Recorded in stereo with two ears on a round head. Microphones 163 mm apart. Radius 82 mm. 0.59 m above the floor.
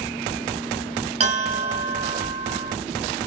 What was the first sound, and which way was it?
A bell, 40° right (ahead or behind).